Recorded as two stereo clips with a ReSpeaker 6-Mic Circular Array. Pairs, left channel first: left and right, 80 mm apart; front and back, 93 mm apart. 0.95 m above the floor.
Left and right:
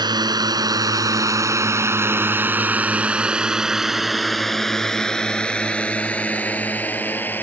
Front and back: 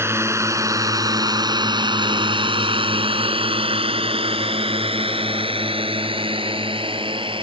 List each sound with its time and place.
0.0 s a drone: 120° right; by 7.4 s 155° left